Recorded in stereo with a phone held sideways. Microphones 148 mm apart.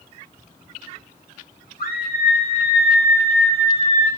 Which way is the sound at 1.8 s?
75° left (ahead or behind).